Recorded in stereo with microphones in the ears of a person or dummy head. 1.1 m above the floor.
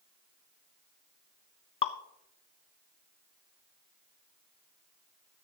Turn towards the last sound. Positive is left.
turn(degrees=30)  # may be behind; listen again after turning